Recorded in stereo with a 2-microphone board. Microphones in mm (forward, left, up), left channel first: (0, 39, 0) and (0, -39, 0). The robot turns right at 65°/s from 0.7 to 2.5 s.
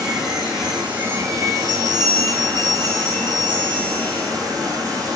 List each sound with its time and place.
0.0 s running water: 175° right, 4 m; by 5.2 s 60° right, 4 m
1.6 s a bell: 140° right, 8.5 m; by 4.3 s 75° right, 8.5 m